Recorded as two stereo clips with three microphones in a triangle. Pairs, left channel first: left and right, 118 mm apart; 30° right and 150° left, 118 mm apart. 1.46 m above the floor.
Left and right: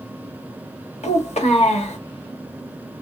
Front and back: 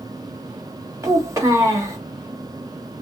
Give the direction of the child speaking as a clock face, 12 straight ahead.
9 o'clock.